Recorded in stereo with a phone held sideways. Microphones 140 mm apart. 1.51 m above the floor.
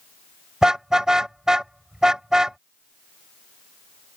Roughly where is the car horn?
Centre.